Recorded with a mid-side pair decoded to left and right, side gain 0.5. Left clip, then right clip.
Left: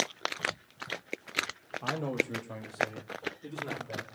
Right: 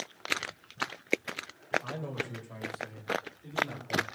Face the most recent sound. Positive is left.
turn(degrees=55)